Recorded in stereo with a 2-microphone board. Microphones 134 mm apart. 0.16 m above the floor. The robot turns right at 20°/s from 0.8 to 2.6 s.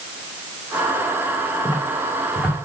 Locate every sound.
1.6 s footsteps: 25° left (ahead or behind), 2 m; by 2.5 s 10° left (ahead or behind), 2 m